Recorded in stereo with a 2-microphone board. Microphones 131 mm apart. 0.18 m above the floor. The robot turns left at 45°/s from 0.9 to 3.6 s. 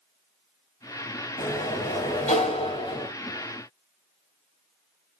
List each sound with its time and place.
1.4 s a sliding door: 105° left, 3 m; by 3.1 s 30° left, 3 m